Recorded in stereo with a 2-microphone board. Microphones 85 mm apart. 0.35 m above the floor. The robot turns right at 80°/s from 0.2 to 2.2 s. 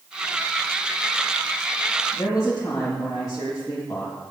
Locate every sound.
2.1 s a woman speaking: 45° left (ahead or behind), 1.8 m; by 4.1 s 50° left (ahead or behind), 1.8 m